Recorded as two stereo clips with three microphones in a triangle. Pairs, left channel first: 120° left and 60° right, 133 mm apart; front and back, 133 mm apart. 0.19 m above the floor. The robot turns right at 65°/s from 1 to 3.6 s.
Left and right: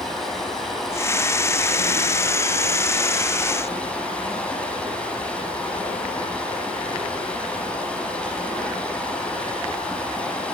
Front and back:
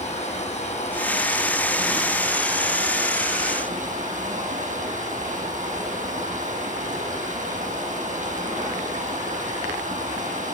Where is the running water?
35° left, 6 m; by 10.5 s 155° right, 6 m.